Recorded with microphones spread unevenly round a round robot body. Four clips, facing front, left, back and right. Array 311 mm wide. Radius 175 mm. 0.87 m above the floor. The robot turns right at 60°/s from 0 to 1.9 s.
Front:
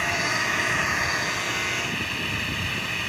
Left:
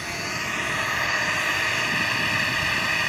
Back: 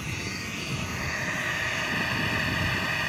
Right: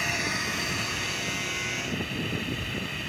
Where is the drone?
10° right; by 3.1 s 105° left.